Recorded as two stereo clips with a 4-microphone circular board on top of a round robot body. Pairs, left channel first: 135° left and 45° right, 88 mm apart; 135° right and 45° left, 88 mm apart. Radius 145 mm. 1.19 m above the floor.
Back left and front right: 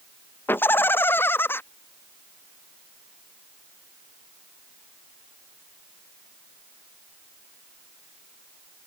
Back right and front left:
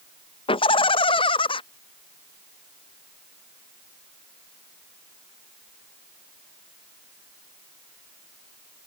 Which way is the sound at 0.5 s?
155° right.